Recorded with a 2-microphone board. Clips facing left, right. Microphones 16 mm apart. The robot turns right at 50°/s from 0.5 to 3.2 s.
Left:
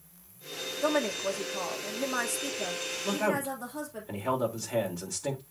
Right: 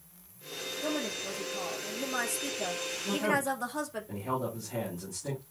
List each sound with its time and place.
0.8 s a woman speaking: 85° left, 1.7 m; by 4.0 s 155° right, 1.7 m
3.0 s a man speaking: 80° left, 4.5 m